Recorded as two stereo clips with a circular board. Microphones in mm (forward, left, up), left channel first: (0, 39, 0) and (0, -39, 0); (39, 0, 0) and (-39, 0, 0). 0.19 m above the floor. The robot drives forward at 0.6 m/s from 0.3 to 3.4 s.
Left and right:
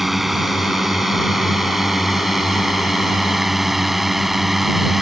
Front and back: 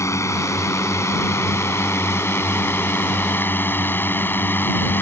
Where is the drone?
5° right.